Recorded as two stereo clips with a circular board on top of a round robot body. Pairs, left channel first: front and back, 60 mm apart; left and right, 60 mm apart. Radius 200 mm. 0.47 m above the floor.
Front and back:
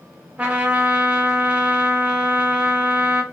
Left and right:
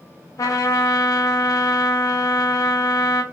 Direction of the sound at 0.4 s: 115° left.